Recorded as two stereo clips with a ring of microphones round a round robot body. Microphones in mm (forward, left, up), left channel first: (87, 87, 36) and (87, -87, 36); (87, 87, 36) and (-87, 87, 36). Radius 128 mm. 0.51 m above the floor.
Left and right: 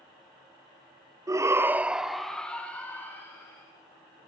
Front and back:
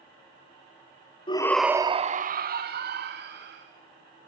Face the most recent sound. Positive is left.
turn(degrees=170)